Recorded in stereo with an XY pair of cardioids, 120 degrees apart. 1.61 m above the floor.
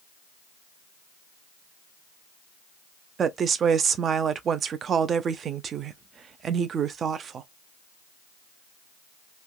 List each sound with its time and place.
3.2 s a woman speaking: 45° right, 0.6 m